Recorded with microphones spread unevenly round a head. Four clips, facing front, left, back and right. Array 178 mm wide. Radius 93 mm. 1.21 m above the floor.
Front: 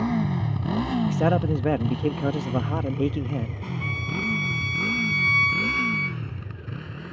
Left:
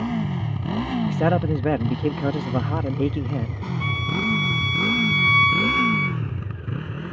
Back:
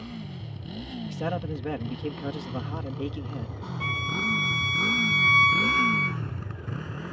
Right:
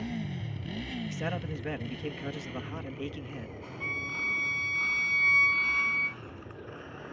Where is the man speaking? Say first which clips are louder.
Left 16 dB, front 5 dB; 55° left.